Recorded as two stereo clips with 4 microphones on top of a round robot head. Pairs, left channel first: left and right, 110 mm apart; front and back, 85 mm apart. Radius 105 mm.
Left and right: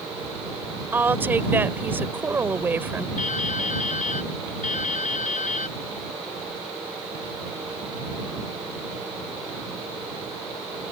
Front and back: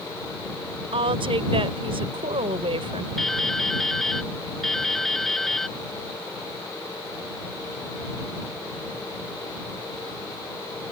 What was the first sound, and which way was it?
A woman speaking, 160° right.